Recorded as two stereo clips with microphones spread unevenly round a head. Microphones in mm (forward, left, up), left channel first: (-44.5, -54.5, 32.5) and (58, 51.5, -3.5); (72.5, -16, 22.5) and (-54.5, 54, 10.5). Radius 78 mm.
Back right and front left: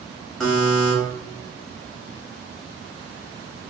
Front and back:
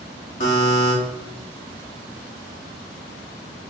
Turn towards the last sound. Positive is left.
turn(degrees=-60)